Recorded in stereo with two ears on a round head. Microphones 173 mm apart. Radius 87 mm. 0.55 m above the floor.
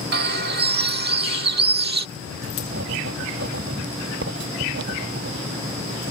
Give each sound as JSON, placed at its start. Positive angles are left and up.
{"t": 0.1, "sound": "a bird", "side_deg": -55}
{"t": 2.2, "sound": "writing", "side_deg": -65}